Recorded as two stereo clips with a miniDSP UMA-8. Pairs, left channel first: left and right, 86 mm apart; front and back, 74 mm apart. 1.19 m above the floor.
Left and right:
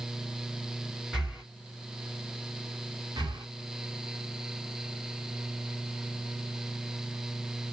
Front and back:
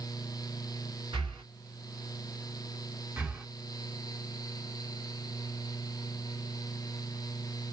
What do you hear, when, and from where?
1.1 s breathing: 175° right, 3 m
3.2 s breathing: 120° right, 1.7 m